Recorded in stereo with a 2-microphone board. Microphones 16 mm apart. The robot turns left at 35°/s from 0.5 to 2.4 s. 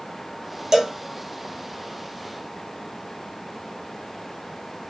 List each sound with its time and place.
0.7 s a cowbell: 25° right (ahead or behind), 1.4 m; by 1.0 s 35° right (ahead or behind), 1.4 m